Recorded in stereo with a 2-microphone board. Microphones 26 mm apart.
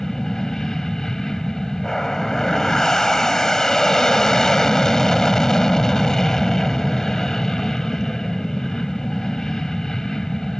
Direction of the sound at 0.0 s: 20° left (ahead or behind).